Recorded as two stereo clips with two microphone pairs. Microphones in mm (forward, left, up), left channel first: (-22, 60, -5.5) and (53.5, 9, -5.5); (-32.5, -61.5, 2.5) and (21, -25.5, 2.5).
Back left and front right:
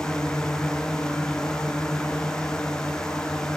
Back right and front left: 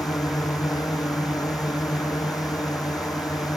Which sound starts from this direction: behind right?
A drone, at 0.0 s.